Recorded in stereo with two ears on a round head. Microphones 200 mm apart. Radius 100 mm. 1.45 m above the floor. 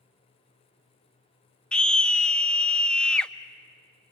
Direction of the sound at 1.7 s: 5° left (ahead or behind).